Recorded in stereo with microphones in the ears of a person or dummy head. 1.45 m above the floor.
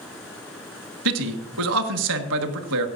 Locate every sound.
1.1 s a man speaking: 70° right (ahead or behind), 1.4 m